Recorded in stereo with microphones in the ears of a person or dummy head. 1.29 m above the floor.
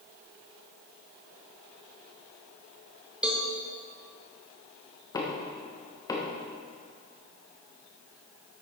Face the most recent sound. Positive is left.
turn(degrees=20)  # may be behind; listen again after turning